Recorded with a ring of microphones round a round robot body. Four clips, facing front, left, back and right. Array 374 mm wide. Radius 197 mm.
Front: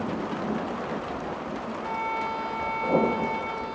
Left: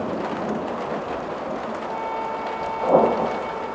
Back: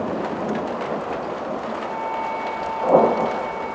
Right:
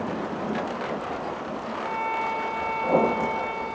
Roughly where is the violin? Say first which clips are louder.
Right 3 dB, even; ahead right.